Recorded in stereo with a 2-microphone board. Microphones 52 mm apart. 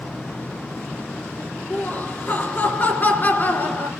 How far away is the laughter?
About 3 m.